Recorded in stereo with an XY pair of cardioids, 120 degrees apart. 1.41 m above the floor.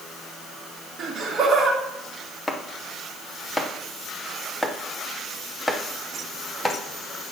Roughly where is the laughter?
Ahead right.